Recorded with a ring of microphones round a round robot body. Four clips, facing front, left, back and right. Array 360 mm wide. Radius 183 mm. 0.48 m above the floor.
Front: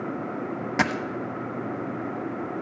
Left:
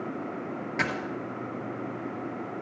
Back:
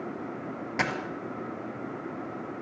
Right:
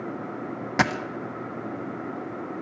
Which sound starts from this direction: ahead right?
A dropped coin, at 0.8 s.